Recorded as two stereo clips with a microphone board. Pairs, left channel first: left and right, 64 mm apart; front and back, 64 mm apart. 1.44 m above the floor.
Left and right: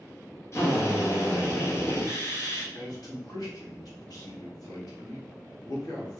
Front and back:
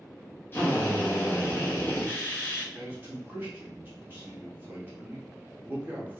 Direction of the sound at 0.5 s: 50° left.